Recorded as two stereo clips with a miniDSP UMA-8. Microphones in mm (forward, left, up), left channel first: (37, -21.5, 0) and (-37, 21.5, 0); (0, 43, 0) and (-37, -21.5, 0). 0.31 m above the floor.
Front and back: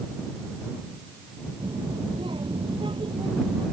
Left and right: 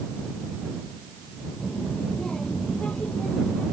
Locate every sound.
1.6 s a child speaking: 140° left; by 3.6 s 135° left